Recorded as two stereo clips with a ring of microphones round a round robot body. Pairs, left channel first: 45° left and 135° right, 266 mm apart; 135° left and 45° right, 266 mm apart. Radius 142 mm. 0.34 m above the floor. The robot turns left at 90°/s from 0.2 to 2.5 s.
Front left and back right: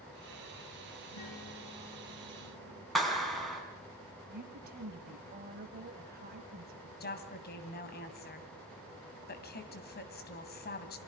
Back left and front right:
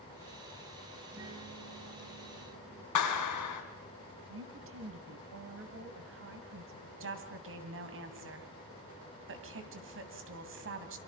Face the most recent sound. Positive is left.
turn(degrees=-5)